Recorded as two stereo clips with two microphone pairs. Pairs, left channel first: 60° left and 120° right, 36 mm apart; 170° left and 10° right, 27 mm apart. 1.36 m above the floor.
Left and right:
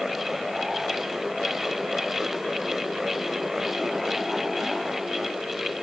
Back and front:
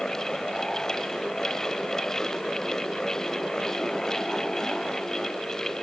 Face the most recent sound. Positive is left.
No sound to turn to.